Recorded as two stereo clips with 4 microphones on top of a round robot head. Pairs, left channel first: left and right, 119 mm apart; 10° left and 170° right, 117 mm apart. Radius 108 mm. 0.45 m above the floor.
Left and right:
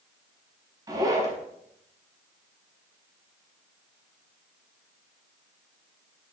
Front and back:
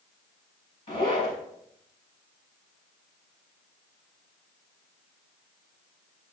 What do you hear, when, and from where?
0.9 s a zipper: 35° right, 4.5 m